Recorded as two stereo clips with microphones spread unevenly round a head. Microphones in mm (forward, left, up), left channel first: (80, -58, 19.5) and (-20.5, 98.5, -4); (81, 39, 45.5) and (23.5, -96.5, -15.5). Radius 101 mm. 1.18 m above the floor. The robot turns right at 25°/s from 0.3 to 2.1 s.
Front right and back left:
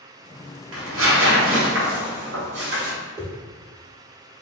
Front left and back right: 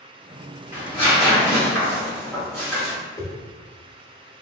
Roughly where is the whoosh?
Ahead left.